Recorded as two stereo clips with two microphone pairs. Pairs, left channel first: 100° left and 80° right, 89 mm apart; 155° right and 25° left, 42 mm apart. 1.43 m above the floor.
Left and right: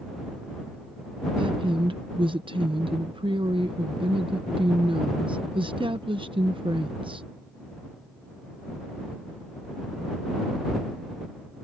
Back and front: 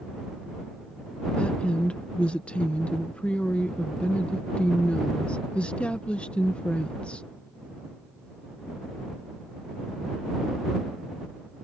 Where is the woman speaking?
95° right.